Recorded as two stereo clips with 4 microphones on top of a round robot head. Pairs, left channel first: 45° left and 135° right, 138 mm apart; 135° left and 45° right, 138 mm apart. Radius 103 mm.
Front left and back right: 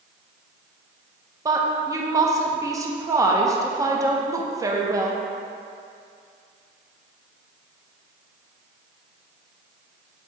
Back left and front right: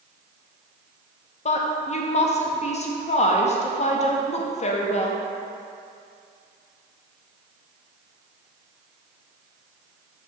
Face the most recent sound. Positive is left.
turn(degrees=160)